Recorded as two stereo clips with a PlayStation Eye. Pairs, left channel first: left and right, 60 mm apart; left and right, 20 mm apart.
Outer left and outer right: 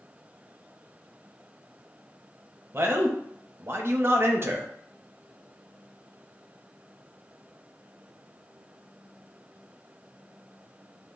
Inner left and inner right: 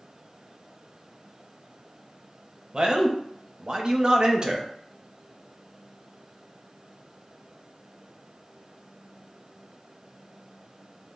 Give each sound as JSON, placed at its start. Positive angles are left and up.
{"t": 2.7, "sound": "a man speaking", "side_deg": -40, "distance_m": 0.7}